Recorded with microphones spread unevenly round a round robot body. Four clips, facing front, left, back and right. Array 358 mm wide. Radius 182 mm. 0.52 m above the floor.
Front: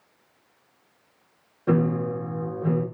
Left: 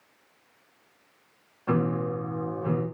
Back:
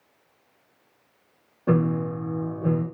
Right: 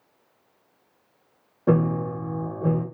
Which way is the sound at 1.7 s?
95° right.